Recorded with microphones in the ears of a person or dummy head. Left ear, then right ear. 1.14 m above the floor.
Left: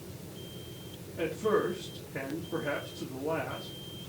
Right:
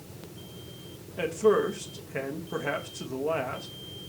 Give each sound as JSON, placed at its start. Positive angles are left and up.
{"t": 1.2, "sound": "a man speaking", "side_deg": -70, "distance_m": 1.3}